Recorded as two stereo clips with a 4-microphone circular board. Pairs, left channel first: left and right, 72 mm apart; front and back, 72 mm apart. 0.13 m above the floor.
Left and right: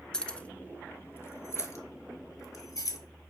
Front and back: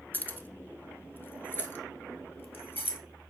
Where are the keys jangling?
20° left, 0.8 m; by 3.0 s 60° left, 1.8 m.